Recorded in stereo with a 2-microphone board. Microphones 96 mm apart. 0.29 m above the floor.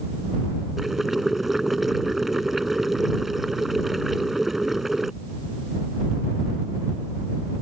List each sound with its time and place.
0.8 s boiling: 5° right (ahead or behind)